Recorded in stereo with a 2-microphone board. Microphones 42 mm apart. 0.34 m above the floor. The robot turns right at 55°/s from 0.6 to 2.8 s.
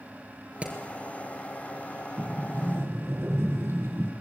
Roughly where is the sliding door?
Behind right.